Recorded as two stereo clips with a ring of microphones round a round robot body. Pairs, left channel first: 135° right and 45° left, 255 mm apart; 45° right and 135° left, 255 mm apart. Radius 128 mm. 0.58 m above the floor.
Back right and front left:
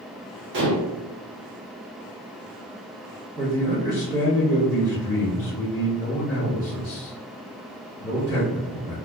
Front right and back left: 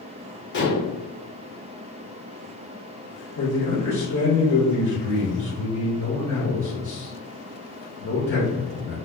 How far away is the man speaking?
About 1.5 m.